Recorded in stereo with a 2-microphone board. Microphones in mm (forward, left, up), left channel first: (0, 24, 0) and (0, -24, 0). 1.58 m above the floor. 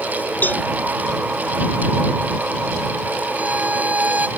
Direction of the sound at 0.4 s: 40° left (ahead or behind).